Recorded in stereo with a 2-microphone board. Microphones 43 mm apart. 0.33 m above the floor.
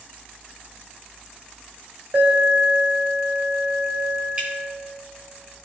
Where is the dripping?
25° right (ahead or behind), 2.5 m.